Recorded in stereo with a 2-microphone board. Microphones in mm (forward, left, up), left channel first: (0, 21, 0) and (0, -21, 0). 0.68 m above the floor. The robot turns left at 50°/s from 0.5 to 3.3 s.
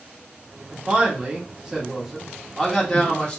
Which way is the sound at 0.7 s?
25° right (ahead or behind).